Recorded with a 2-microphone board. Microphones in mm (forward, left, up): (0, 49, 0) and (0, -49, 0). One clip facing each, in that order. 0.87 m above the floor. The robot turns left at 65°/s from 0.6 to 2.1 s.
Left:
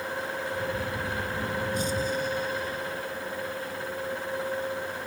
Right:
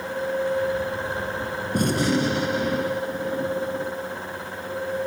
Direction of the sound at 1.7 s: 55° right (ahead or behind).